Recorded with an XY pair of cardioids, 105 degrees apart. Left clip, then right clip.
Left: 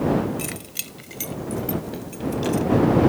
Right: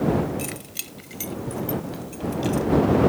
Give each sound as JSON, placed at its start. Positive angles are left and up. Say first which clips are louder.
{"t": 0.4, "sound": "keys jangling", "louder": "left 1 dB", "azimuth_deg": 10}